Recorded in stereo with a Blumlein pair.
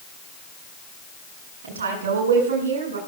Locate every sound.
1.6 s a woman speaking: 65° right, 8.5 m